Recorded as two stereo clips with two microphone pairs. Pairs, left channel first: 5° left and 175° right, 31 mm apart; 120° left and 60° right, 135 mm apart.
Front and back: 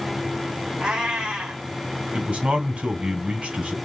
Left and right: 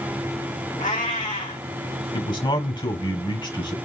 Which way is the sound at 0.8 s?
130° left.